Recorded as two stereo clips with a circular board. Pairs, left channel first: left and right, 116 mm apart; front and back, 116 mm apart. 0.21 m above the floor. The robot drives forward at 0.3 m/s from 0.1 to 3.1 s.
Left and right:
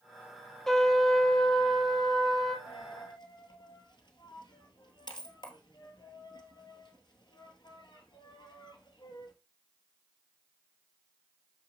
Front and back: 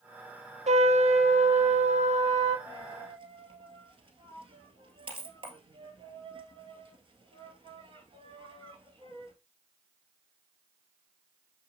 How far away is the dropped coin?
About 1.6 m.